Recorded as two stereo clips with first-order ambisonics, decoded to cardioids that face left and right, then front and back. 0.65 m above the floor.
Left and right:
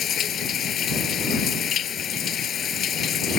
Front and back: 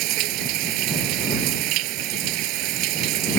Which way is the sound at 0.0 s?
150° left.